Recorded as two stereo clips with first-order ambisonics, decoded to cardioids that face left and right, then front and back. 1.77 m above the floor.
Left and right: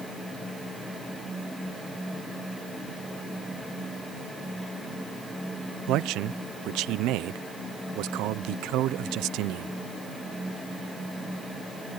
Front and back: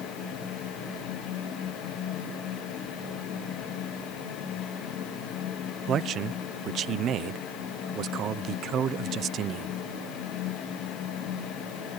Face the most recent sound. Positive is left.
turn(degrees=-125)